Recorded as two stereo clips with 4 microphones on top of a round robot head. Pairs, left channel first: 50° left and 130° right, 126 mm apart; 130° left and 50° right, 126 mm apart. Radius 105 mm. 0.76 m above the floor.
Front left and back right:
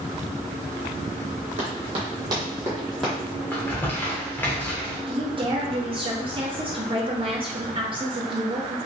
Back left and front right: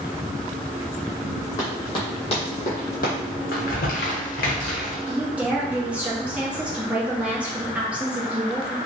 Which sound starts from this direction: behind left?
Crumpling, at 3.5 s.